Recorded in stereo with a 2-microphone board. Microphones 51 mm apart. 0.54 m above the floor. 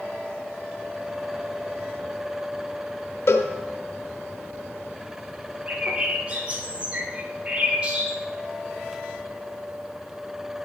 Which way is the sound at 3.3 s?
65° left (ahead or behind).